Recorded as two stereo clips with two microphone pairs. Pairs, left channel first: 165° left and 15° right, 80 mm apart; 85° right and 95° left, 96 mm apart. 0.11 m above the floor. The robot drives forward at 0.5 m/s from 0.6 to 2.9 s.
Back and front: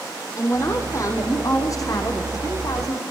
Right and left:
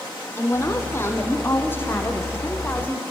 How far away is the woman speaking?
About 4 m.